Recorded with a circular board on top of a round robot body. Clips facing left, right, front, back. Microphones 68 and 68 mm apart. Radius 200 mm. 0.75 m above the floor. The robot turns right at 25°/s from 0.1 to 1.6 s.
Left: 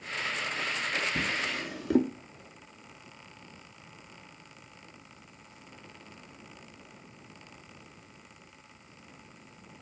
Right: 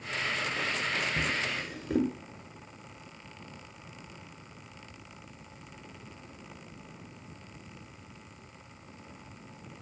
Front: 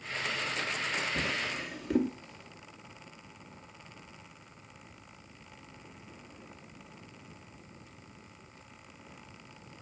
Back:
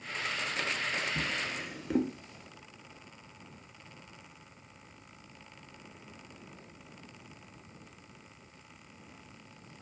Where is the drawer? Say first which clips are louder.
Even, front 1 dB; 85° left, 1.0 m; by 2.1 s 95° left, 1.0 m.